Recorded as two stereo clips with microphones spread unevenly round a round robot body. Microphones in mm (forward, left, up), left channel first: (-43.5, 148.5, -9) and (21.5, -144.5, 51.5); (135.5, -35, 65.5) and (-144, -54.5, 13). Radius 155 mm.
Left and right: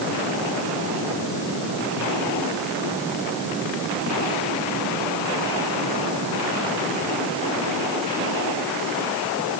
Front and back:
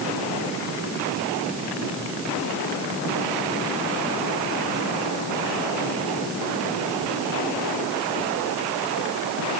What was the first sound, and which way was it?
Only background noise.